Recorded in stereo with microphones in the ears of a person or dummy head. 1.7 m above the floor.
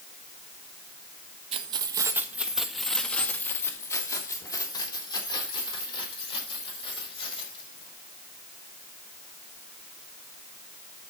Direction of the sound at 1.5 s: 35° right (ahead or behind).